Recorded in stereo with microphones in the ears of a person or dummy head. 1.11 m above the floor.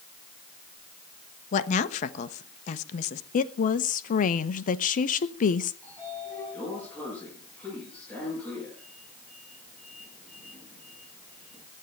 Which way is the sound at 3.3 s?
40° left (ahead or behind).